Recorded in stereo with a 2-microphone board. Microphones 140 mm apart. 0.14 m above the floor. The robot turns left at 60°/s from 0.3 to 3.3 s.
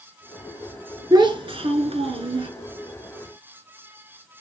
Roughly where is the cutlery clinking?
No cutlery clinking in this recording.